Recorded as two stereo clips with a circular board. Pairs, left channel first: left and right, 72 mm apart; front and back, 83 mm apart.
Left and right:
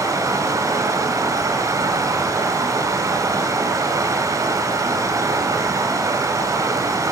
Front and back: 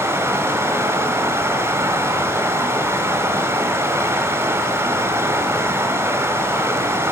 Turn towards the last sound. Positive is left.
turn(degrees=-125)